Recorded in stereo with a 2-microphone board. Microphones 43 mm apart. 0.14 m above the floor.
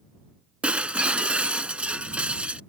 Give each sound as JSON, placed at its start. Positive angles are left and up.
{"t": 0.6, "sound": "breaking glass", "side_deg": -30}